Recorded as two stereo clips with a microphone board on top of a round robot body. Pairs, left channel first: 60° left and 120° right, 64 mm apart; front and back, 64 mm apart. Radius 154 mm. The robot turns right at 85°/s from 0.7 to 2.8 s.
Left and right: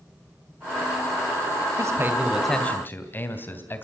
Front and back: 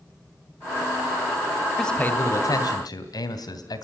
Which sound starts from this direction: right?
A man speaking, at 1.8 s.